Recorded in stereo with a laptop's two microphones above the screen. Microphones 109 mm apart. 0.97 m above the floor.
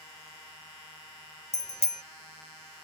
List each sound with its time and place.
1.5 s a bicycle bell: 85° left